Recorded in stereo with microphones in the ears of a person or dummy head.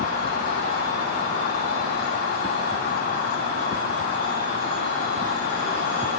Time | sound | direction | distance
0.0 | an insect | 60° left (ahead or behind) | 2.5 m